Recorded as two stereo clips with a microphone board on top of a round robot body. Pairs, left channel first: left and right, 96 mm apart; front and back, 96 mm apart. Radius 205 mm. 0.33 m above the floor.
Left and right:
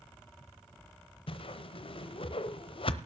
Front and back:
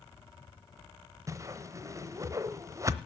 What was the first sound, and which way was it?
A whoosh, 120° left.